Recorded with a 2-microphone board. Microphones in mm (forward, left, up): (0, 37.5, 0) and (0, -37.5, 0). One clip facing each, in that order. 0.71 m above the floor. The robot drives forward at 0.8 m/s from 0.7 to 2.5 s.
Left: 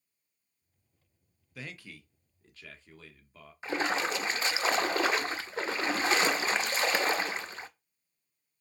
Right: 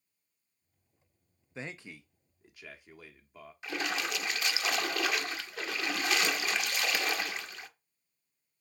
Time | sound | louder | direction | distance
1.6 | a man speaking | right 2 dB | 30° right (ahead or behind) | 0.5 m
3.6 | a splash | left 5 dB | 30° left (ahead or behind) | 0.6 m